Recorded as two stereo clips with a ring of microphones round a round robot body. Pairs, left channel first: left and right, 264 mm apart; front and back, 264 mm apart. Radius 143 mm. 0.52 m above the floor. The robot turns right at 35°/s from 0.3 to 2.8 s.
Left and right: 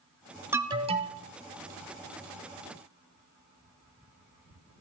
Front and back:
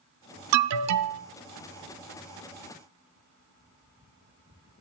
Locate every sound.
0.5 s an alarm: 170° right, 0.7 m; by 1.2 s 145° right, 0.7 m